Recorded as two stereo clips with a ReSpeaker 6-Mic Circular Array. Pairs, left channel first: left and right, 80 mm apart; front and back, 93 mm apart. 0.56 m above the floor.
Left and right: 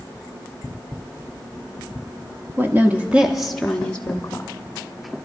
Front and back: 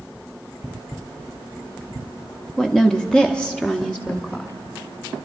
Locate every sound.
2.6 s a woman speaking: 80° right, 1.1 m; by 4.5 s 70° left, 1.1 m